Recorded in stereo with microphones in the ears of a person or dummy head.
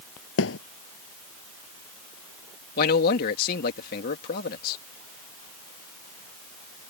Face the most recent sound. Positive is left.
turn(degrees=50)  # may be behind; listen again after turning